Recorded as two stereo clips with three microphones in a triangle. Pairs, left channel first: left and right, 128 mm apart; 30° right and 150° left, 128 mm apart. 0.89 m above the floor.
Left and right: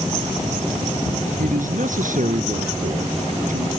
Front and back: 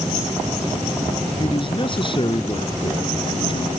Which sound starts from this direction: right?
A man speaking, at 1.4 s.